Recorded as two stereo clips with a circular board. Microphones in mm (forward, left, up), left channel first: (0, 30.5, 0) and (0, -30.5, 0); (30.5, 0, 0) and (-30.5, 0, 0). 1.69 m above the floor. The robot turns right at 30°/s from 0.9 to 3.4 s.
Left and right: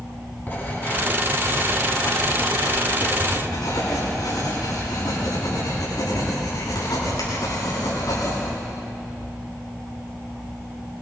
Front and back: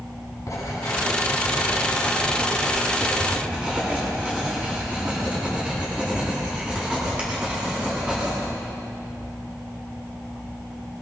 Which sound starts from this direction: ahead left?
Writing, at 0.5 s.